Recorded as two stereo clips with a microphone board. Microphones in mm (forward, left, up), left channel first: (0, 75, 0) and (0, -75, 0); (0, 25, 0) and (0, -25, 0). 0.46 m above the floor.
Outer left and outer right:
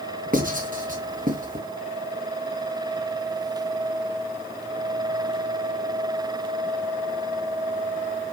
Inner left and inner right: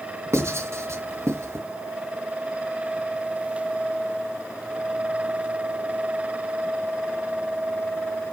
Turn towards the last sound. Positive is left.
turn(degrees=-65)  # may be behind; listen again after turning